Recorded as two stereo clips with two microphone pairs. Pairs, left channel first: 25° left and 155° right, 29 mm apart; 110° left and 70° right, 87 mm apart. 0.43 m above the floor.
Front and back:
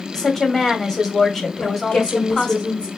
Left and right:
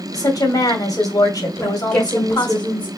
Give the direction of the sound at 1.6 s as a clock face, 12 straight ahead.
11 o'clock.